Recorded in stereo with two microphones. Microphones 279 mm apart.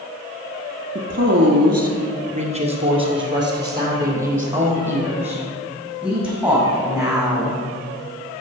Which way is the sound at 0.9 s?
45° right (ahead or behind).